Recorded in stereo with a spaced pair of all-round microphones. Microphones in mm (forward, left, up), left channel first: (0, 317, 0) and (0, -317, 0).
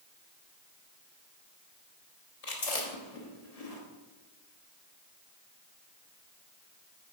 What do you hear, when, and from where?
2.4 s chewing: 70° left (ahead or behind), 1.3 m